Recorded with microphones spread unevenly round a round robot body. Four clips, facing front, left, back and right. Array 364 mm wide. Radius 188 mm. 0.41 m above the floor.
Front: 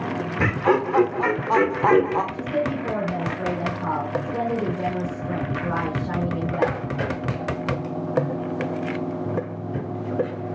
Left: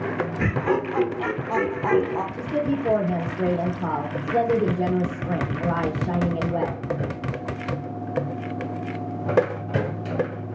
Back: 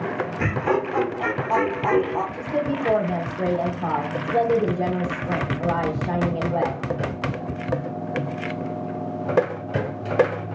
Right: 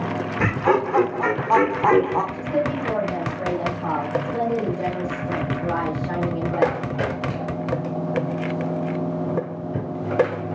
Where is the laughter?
50° right, 1.1 m.